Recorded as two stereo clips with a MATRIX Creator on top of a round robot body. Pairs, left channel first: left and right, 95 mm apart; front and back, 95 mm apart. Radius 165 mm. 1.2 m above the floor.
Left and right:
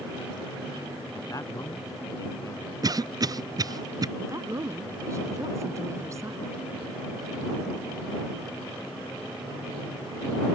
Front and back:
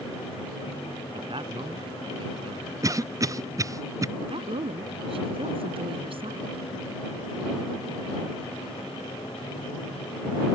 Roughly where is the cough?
Behind right.